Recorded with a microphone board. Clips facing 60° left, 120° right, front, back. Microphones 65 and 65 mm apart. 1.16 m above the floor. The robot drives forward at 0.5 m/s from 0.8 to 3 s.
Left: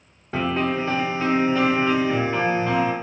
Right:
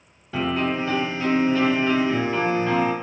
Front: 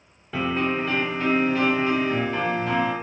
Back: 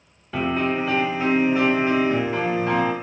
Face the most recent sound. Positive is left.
turn(degrees=145)